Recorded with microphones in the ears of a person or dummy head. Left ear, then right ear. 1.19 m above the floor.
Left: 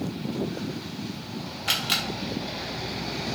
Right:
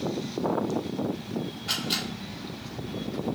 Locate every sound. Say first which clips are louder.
1.7 s a camera shutter: left 4 dB; 50° left (ahead or behind), 0.8 m